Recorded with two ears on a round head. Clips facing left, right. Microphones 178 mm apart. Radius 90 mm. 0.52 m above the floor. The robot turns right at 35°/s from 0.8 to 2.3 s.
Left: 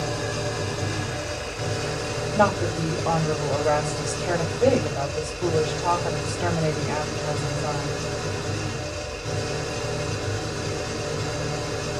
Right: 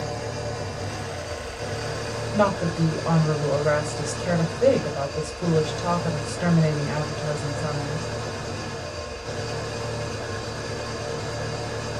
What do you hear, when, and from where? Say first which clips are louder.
0.0 s an engine running: left 2 dB; 90° left, 1.7 m; by 12.0 s 140° left, 1.7 m
2.3 s a woman speaking: even; 5° right (ahead or behind), 2 m